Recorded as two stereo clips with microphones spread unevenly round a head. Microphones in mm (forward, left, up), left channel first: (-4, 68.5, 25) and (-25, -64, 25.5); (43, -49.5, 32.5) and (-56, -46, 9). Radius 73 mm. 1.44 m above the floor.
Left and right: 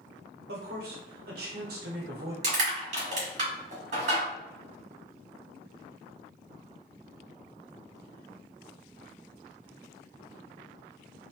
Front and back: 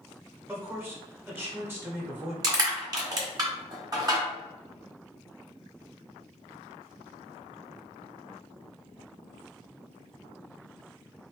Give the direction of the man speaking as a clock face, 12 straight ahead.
4 o'clock.